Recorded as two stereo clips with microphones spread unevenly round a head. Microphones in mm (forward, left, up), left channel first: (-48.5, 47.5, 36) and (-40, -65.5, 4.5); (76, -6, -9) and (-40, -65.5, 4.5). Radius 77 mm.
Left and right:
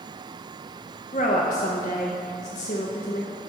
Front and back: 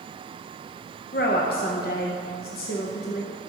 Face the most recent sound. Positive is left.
turn(degrees=55)